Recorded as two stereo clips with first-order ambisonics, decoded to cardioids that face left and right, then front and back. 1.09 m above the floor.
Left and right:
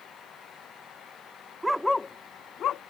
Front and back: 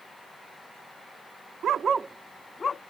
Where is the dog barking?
165° right; by 2.8 s 55° left.